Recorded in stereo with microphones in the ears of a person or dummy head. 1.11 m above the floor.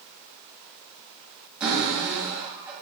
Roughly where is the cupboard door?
Centre.